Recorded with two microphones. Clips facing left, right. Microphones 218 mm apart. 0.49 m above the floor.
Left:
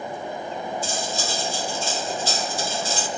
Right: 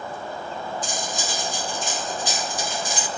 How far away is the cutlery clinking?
About 0.6 m.